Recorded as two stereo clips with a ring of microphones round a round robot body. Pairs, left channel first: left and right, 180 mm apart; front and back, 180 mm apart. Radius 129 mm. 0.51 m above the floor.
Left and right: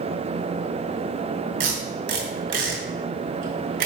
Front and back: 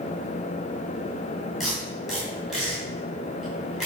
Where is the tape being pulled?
90° right, 2.5 m.